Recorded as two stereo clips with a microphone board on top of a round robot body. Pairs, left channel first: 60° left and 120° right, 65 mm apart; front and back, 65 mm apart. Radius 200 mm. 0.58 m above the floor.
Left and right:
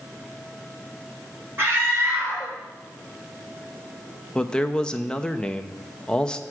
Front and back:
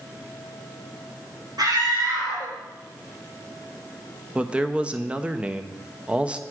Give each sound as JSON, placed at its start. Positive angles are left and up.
{"t": 1.6, "sound": "a scream", "azimuth_deg": -170, "distance_m": 3.5}
{"t": 4.3, "sound": "a man speaking", "azimuth_deg": 125, "distance_m": 0.8}